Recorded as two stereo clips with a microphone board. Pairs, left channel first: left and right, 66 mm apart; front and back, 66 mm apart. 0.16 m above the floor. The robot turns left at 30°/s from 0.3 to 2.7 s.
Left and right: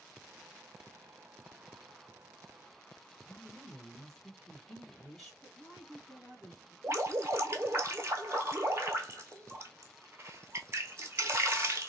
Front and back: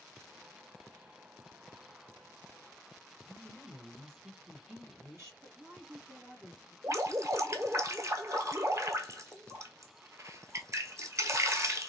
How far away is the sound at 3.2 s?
About 2 m.